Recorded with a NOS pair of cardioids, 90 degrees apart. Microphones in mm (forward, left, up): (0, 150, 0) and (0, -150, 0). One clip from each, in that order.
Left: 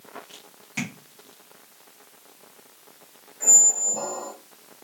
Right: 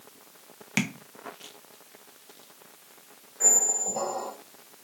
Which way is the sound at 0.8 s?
70° right.